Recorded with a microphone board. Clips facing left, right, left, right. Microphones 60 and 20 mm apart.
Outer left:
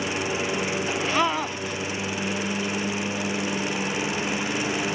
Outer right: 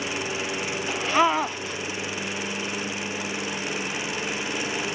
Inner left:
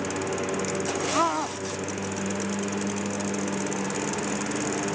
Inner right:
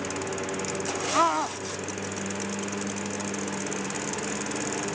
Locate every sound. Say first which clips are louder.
0.0 s a lawn mower: outer left 3 dB, inner left 3 dB; 15° left (ahead or behind); by 4.9 s 20° left (ahead or behind)
1.1 s a scream: outer right 5 dB, inner right 3 dB; 15° right (ahead or behind)